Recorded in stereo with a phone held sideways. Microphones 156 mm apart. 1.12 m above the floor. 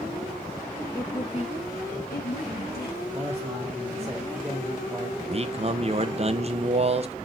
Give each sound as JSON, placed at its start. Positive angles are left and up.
{"t": 0.9, "sound": "a woman speaking", "side_deg": 20, "distance_m": 1.2}
{"t": 3.1, "sound": "a man speaking", "side_deg": -15, "distance_m": 1.4}
{"t": 5.2, "sound": "a man speaking", "side_deg": -40, "distance_m": 0.6}